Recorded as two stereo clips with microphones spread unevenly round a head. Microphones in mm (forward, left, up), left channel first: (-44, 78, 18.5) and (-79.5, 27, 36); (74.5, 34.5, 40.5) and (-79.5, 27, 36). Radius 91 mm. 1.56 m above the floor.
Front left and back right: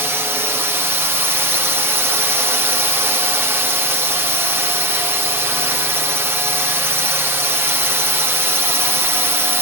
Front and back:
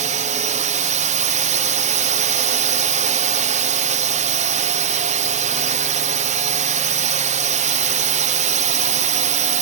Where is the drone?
175° left.